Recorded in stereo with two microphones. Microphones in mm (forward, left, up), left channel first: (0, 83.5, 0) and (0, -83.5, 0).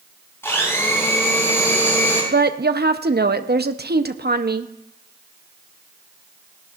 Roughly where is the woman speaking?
Right.